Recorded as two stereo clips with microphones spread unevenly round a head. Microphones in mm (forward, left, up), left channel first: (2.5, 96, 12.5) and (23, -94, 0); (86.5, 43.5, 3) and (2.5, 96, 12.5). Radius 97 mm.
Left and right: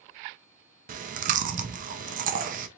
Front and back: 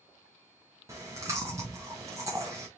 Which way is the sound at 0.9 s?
135° right.